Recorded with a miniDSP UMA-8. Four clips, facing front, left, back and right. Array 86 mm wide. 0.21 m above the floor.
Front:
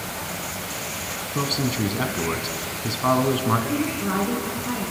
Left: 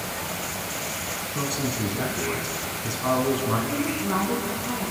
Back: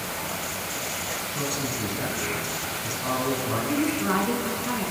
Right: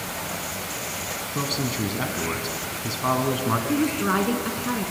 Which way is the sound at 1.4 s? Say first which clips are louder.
Right 1 dB, front 7 dB; 20° right.